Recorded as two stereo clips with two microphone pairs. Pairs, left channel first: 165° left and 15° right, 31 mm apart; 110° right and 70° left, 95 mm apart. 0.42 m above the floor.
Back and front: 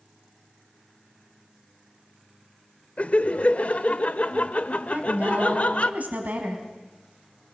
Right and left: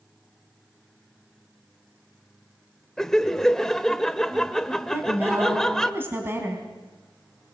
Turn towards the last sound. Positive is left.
turn(degrees=10)